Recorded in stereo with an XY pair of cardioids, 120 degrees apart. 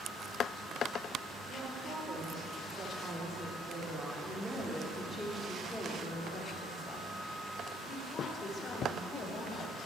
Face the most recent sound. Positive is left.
turn(degrees=55)